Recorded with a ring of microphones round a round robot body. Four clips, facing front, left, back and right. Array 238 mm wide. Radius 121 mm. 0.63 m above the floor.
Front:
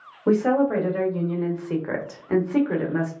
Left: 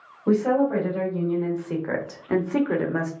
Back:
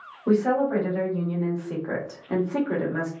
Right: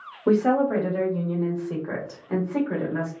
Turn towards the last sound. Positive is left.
turn(degrees=85)